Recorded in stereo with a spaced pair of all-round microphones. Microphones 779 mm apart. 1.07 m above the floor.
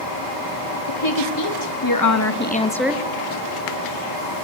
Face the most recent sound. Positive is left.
turn(degrees=-10)  # may be behind; listen again after turning